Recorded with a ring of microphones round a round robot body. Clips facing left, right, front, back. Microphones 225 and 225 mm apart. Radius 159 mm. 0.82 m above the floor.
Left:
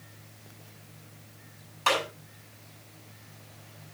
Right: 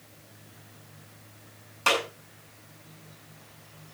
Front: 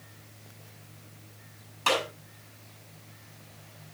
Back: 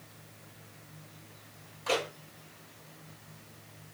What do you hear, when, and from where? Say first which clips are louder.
1.9 s a clap: right 1 dB, front 2 dB; 40° right, 7 m